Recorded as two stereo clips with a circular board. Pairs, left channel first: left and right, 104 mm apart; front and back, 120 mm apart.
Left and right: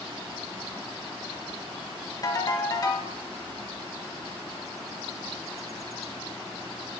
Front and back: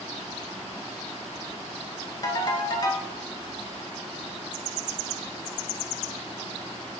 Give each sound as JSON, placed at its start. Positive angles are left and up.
{"t": 2.2, "sound": "a ringtone", "azimuth_deg": 45, "distance_m": 0.6}